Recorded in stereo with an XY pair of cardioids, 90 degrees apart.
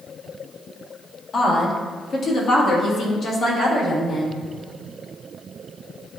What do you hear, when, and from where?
1.3 s a woman speaking: 60° left, 2 m; by 4.4 s 70° left, 4 m